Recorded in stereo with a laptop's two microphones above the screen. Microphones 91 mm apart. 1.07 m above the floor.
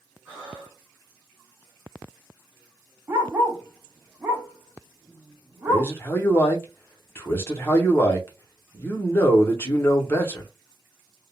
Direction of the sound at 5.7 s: 25° left (ahead or behind).